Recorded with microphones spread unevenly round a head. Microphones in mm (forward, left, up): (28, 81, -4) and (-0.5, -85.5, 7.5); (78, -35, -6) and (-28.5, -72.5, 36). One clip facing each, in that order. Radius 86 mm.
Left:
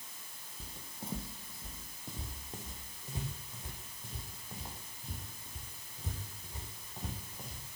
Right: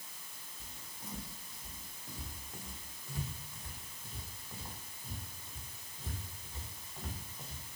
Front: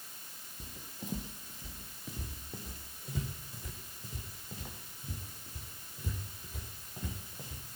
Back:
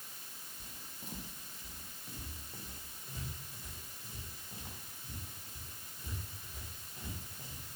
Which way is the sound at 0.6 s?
20° left.